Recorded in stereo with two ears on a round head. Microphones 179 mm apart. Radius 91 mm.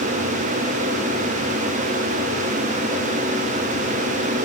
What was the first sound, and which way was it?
Only background noise.